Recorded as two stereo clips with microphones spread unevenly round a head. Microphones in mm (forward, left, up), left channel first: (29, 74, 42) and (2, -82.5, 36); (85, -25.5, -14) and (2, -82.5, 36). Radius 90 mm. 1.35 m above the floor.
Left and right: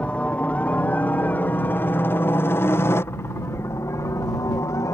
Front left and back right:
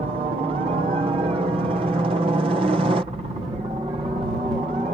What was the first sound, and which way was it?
A helicopter, 160° left.